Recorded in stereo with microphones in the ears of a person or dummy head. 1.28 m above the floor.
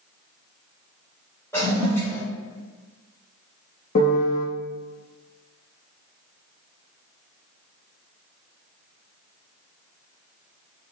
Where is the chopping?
No chopping in this recording.